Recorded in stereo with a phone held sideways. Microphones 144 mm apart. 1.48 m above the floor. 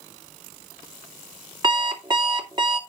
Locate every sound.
1.6 s an alarm clock: 30° right (ahead or behind), 2.0 m